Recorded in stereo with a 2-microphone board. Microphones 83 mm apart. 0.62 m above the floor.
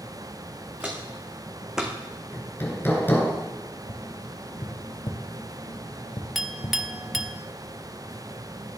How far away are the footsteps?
About 3.5 m.